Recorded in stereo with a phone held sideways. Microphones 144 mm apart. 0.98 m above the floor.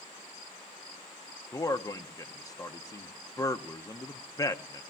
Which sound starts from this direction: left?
A man speaking, at 1.5 s.